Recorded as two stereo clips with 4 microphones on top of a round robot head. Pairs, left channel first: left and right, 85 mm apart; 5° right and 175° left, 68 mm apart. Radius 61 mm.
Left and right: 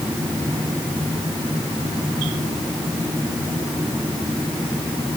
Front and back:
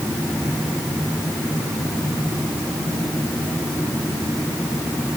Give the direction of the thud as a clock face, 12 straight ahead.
No thud in this recording.